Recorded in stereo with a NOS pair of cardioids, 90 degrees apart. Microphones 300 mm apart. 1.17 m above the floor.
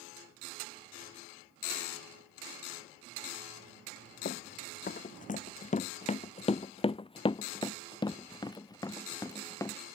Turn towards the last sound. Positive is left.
turn(degrees=10)